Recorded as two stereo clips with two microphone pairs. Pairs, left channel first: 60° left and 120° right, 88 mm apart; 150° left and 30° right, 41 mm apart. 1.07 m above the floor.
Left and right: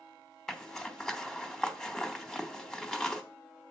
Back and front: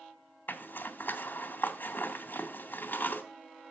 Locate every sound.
0.5 s a zipper: 145° left, 1.0 m